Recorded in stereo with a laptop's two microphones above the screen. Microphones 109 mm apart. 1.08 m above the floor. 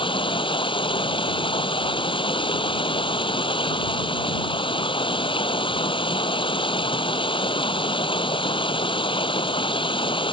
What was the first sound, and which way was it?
Running water, 50° left (ahead or behind).